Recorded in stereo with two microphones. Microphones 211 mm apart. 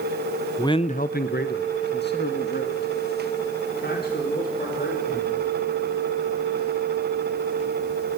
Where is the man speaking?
15° left (ahead or behind), 0.7 m; by 5.4 s 50° left (ahead or behind), 6 m.